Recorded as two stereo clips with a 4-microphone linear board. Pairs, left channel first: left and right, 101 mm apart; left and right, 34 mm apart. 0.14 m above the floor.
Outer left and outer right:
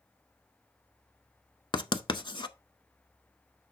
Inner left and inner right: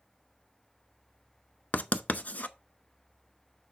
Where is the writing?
50° left (ahead or behind), 0.6 m.